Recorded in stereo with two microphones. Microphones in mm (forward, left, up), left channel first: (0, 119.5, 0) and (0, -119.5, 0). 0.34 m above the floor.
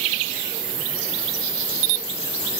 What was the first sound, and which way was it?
Only background noise.